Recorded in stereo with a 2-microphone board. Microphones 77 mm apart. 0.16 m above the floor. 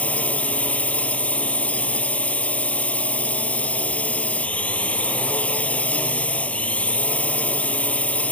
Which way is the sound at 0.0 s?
20° left (ahead or behind).